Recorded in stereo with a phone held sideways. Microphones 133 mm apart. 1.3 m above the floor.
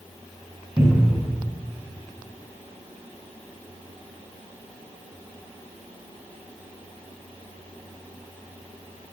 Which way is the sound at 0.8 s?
20° right (ahead or behind).